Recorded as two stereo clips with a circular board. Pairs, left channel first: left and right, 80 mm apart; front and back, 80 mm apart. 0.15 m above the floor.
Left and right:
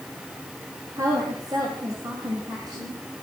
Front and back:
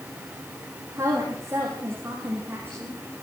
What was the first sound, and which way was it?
A woman speaking, 130° right.